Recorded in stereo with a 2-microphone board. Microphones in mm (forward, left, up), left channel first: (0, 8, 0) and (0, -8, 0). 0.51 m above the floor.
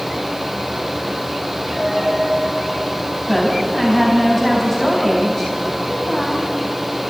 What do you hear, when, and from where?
1.7 s a dropped coin: 70° left (ahead or behind), 8.5 m
3.3 s a woman speaking: 15° left (ahead or behind), 4 m